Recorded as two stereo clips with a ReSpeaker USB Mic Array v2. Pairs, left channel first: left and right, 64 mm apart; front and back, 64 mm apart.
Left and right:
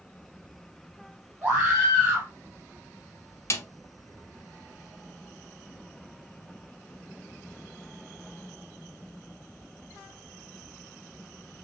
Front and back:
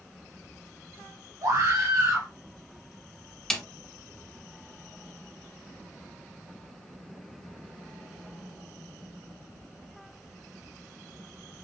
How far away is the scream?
About 3 m.